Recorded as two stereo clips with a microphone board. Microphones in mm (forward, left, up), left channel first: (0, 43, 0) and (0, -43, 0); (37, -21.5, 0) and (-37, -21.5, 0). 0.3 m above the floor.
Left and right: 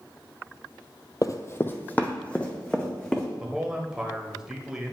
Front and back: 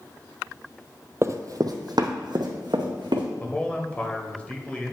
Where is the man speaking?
25° right, 0.9 m.